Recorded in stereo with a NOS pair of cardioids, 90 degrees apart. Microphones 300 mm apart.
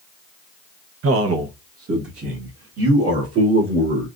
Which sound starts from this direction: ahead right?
A man speaking, at 1.0 s.